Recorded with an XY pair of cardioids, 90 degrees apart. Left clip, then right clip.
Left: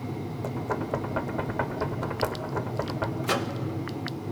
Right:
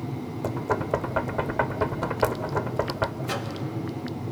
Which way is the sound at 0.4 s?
30° right.